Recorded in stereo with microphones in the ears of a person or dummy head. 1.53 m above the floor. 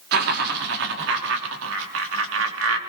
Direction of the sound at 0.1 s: 55° right (ahead or behind).